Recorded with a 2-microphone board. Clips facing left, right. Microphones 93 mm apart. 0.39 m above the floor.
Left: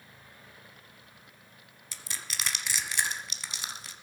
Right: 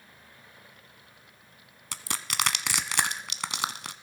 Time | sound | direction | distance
1.9 | crushing | 75° right (ahead or behind) | 1.0 m